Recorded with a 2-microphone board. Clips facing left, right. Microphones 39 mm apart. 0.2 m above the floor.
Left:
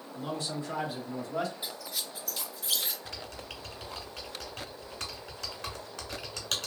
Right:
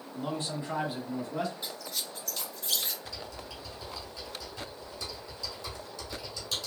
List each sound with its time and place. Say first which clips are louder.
0.1 s a man speaking: right 1 dB; 35° right (ahead or behind), 1.4 m; by 1.5 s 5° left (ahead or behind), 1.3 m
1.6 s a squeak: even; 5° left (ahead or behind), 0.6 m
3.0 s typing on a keyboard: even; 60° left (ahead or behind), 0.8 m